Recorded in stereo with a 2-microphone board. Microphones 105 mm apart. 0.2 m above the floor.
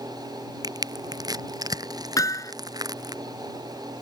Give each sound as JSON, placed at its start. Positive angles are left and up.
{"t": 0.6, "sound": "crushing", "side_deg": -35}
{"t": 2.2, "sound": "hammering", "side_deg": 30}